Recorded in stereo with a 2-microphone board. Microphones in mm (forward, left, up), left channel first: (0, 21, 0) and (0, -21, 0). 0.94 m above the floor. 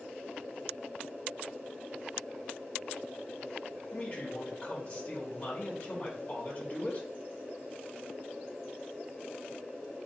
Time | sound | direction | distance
3.9 | a man speaking | 45° left (ahead or behind) | 1.3 m